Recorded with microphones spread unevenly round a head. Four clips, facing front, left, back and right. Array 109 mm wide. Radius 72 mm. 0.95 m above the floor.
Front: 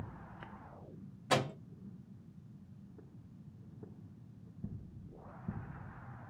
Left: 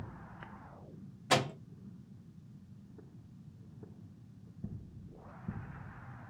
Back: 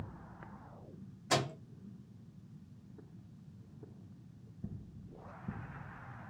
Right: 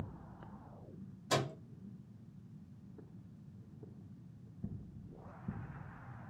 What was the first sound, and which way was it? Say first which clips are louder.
A microwave: left 4 dB, front 1 dB; 85° left.